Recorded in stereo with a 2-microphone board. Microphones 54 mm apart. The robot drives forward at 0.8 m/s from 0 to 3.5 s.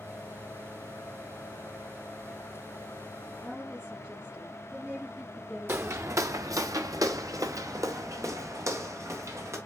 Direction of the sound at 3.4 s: 10° right (ahead or behind).